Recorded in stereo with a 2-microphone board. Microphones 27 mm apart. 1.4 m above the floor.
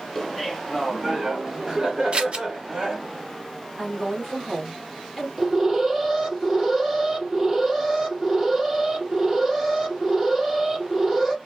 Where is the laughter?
15° left (ahead or behind), 1.2 m; by 3.0 s 30° right (ahead or behind), 3 m.